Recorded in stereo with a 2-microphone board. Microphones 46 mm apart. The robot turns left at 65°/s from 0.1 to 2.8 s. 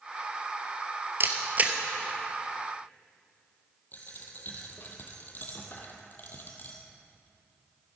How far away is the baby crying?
No baby crying in this recording.